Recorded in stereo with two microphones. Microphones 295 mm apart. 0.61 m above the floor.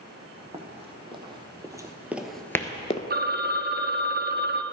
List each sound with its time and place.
0.5 s running footsteps: 20° right (ahead or behind), 1.9 m; by 3.0 s 25° left (ahead or behind), 0.6 m
3.1 s a phone ringing: 35° right (ahead or behind), 0.6 m